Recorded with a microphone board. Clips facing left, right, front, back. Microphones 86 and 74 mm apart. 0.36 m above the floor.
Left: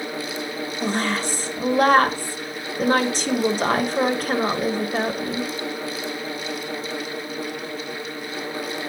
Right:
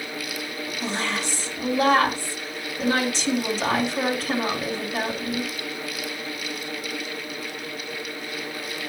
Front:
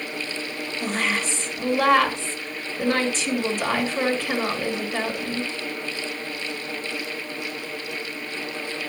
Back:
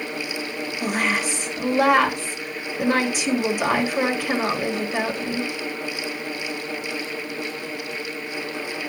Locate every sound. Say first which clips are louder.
0.8 s a woman speaking: left 4 dB, back 2 dB; 105° left, 1.2 m